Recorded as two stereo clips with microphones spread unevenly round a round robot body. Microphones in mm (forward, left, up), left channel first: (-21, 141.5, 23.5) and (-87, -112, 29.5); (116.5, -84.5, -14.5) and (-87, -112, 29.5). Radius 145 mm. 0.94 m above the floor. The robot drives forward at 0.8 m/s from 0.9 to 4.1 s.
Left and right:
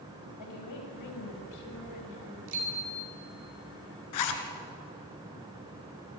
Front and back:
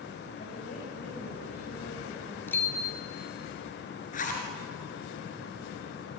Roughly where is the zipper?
Left.